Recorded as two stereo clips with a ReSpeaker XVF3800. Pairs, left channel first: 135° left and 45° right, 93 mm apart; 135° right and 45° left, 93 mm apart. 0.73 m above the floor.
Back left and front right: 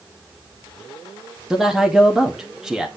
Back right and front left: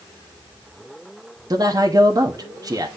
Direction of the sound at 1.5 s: 40° left.